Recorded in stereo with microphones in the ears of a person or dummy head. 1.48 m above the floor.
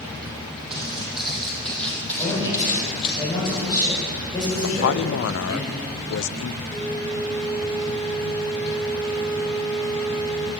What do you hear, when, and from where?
0.7 s footsteps: 5° right (ahead or behind), 4 m; by 3.2 s 30° left (ahead or behind), 2.5 m
2.2 s a man speaking: 25° left (ahead or behind), 7.5 m
4.6 s a man speaking: 70° left (ahead or behind), 0.6 m
6.7 s a flute: 15° left (ahead or behind), 1.7 m